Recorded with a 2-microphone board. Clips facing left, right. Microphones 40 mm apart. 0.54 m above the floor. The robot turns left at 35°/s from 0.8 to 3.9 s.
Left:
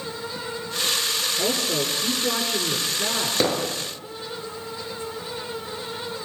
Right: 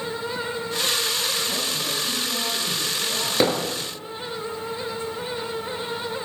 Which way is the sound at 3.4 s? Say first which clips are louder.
Right 2 dB; 10° right (ahead or behind).